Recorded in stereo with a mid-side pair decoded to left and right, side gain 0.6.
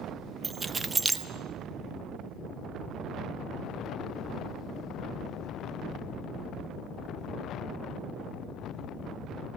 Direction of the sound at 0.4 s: 20° right.